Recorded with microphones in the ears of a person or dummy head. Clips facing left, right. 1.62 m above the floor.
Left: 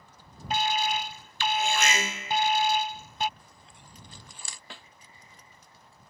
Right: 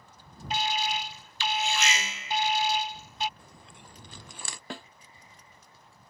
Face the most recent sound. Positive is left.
turn(degrees=-40)  # may be behind; listen again after turning